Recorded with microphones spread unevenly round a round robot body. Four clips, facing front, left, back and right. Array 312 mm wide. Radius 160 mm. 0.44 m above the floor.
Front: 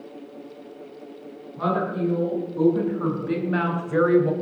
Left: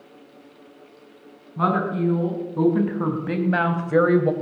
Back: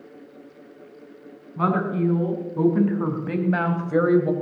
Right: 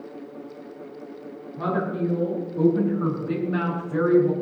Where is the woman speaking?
120° left, 5.5 m; by 4.3 s 85° left, 2.5 m.